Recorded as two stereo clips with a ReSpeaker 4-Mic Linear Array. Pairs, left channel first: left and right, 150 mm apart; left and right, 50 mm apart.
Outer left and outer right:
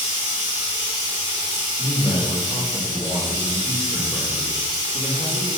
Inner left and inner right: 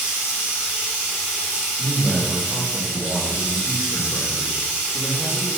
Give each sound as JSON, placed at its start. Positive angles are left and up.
{"t": 0.0, "sound": "running water", "side_deg": -25, "distance_m": 1.8}
{"t": 1.8, "sound": "a man speaking", "side_deg": 15, "distance_m": 1.2}